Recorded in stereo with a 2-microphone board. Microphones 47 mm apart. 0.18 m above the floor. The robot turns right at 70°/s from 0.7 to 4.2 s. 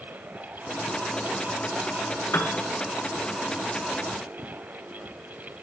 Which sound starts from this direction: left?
A piano, at 2.3 s.